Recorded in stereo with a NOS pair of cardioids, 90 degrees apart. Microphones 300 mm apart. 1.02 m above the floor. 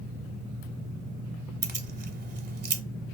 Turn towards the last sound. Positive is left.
turn(degrees=-35)